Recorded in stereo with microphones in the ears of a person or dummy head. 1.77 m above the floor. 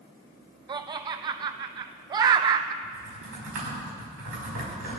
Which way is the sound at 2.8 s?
75° right (ahead or behind).